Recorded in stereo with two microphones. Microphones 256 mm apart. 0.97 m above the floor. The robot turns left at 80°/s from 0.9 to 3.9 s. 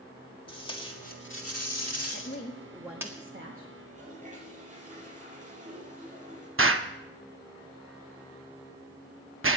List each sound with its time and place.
0.5 s tape being pulled: 20° left (ahead or behind), 1.8 m; by 3.1 s 15° right (ahead or behind), 1.8 m
2.1 s a woman speaking: 55° left, 1.4 m; by 3.7 s 70° right, 1.4 m
3.8 s a toilet flushing: 35° right (ahead or behind), 7 m; by 6.5 s 30° right (ahead or behind), 7 m
6.6 s an explosion: 55° right (ahead or behind), 0.8 m